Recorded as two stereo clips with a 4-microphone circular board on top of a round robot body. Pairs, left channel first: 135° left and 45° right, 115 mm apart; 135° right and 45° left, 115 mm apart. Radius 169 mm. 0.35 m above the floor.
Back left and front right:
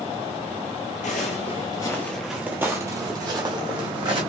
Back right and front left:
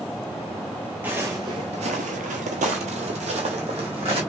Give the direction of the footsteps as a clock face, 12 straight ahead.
8 o'clock.